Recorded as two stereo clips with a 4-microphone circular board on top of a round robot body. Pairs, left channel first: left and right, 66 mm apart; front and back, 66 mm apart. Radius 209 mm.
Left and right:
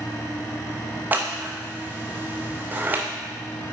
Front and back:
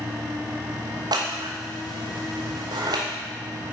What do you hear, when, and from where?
1.1 s scissors: 155° right, 0.6 m